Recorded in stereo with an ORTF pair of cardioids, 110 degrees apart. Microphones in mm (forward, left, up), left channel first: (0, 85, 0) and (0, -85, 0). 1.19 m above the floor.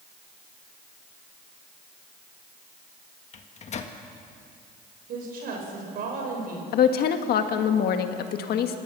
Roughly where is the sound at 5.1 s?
Ahead right.